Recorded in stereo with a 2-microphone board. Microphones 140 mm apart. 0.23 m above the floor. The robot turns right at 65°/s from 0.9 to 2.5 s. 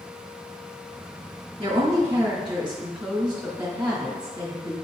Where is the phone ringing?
No phone ringing in this recording.